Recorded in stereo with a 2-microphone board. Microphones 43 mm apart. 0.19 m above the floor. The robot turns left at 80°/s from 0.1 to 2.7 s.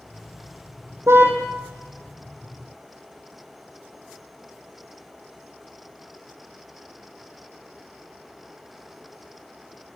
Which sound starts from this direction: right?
A car horn, at 1.1 s.